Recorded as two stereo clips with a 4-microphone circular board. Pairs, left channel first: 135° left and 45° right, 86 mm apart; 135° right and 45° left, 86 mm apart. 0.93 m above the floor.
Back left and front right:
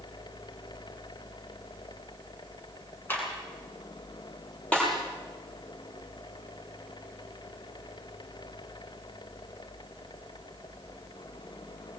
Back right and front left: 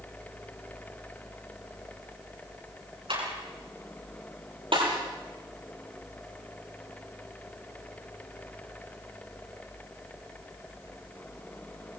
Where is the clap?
65° left, 9 m.